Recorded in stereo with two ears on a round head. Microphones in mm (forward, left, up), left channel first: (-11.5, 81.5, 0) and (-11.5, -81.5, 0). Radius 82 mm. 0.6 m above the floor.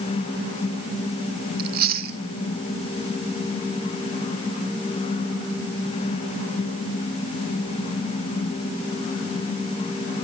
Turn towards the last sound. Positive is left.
turn(degrees=-55)  # may be behind; listen again after turning